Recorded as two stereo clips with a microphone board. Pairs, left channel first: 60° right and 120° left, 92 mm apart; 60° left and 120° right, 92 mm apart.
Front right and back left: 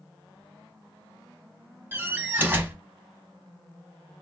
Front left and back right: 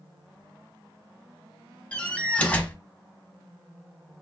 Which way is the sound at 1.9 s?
110° left.